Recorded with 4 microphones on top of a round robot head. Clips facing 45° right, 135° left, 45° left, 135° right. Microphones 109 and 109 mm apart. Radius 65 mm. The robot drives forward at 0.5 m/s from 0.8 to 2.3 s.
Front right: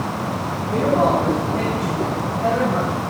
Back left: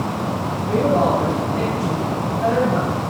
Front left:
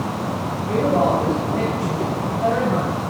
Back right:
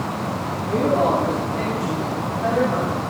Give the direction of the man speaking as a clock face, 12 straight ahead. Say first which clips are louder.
Even, front left 1 dB; 9 o'clock.